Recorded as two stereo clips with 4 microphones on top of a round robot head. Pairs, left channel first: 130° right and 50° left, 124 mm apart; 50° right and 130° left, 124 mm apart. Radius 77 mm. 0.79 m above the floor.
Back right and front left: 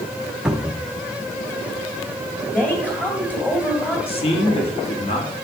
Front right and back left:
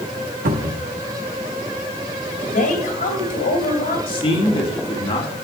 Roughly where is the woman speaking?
Ahead right.